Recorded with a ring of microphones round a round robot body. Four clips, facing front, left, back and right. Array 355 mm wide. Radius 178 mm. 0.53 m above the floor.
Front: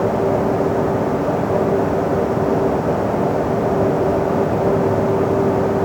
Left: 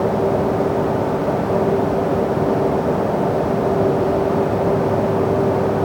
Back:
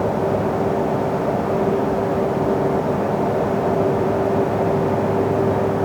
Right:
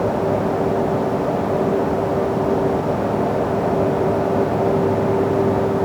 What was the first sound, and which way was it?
Only background noise.